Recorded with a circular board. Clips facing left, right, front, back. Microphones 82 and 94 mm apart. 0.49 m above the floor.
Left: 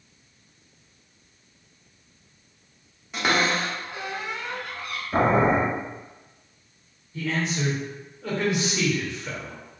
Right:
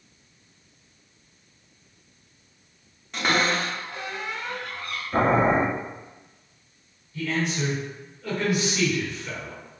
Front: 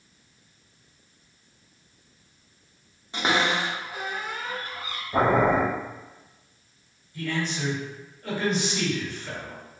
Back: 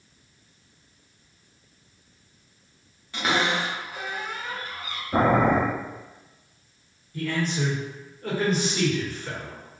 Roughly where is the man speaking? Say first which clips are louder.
Even, back 2 dB; behind left.